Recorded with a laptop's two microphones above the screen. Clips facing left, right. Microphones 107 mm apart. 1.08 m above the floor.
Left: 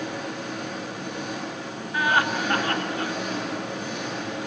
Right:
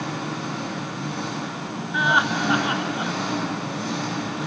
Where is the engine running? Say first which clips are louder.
Right 2 dB; 85° right, 7 m.